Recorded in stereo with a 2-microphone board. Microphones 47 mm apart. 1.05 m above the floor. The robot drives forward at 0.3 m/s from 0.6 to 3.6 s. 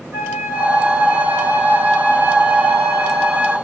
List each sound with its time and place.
0.1 s a flute: 70° right (ahead or behind), 5 m; by 3.5 s 60° right (ahead or behind), 5 m